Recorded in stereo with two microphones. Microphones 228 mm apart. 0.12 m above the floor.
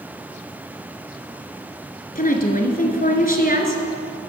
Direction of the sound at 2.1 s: 40° left (ahead or behind).